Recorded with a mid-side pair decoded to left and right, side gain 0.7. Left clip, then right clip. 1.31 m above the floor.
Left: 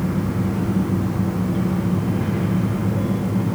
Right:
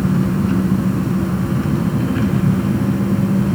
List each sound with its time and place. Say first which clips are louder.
0.0 s an engine running: right 4 dB; 65° right, 6 m